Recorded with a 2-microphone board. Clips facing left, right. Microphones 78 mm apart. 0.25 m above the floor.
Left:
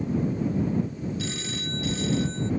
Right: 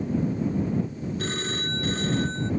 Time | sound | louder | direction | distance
1.2 | a phone ringing | right 3 dB | 50° right (ahead or behind) | ?